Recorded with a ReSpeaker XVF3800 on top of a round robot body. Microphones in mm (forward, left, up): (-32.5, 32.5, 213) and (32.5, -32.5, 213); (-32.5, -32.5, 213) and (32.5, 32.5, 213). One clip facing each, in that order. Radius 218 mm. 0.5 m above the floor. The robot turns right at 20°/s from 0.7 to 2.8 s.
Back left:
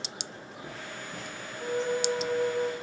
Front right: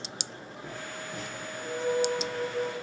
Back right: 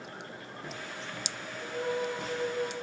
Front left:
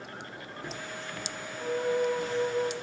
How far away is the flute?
About 1.8 m.